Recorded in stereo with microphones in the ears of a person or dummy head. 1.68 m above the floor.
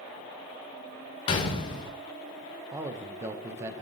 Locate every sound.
1.3 s a gunshot: 35° left (ahead or behind), 1.2 m
2.7 s a man speaking: 15° right (ahead or behind), 1.0 m